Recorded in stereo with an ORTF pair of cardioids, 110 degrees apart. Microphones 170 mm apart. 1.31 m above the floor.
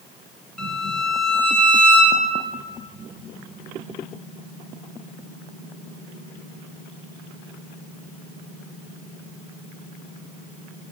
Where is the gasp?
I don't hear a gasp.